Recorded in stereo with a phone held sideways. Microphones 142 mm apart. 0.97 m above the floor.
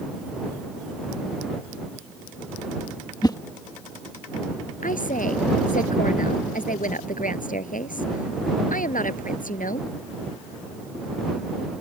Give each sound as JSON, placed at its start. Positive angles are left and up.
{"t": 3.2, "sound": "a whoosh", "side_deg": 30}
{"t": 4.8, "sound": "a woman speaking", "side_deg": 70}